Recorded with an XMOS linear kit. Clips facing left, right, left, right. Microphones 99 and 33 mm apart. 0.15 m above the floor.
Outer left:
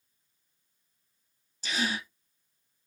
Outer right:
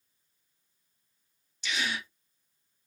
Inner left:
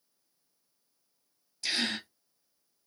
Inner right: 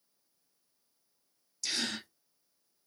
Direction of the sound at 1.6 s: 40° left (ahead or behind).